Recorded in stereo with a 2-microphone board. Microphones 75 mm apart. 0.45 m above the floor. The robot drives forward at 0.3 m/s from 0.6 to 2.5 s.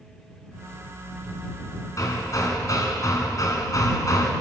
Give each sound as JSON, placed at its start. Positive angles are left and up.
{"t": 2.0, "sound": "hammering", "side_deg": 50, "distance_m": 3.0}